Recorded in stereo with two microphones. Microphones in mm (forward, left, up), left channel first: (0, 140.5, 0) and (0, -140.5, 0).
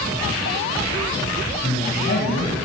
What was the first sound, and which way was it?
A man speaking, 40° left (ahead or behind).